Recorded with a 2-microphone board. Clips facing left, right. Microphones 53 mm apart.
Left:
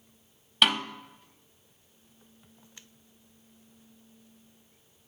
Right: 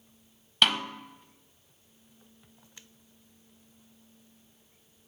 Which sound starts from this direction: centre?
A snare drum, at 0.6 s.